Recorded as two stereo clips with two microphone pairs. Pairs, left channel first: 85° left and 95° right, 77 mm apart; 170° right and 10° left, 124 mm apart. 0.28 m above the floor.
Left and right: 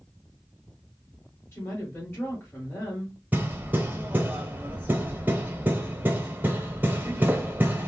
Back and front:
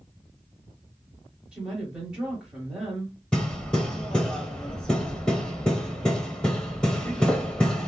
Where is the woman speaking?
80° left, 1.5 m.